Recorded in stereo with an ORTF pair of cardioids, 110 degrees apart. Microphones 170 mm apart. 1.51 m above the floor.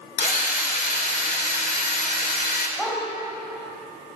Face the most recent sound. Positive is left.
turn(degrees=10)